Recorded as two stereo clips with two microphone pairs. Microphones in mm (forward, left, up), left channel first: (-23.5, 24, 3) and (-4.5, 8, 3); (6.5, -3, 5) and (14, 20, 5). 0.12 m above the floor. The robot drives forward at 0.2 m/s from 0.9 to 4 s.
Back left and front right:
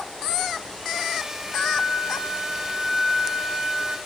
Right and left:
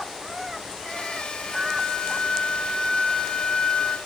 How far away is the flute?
About 2.5 m.